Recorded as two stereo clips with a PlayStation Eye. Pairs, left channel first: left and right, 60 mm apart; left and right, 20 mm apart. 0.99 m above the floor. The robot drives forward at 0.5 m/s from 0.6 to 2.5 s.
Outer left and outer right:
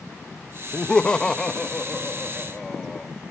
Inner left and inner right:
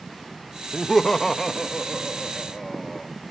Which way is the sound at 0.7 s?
20° left (ahead or behind).